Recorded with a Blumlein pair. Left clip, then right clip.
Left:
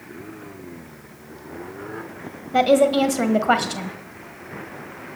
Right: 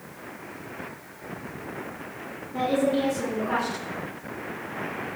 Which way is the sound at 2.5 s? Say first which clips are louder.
Left 8 dB; 50° left.